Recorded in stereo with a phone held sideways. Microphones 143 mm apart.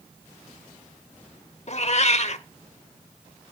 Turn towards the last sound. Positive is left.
turn(degrees=50)  # may be behind; listen again after turning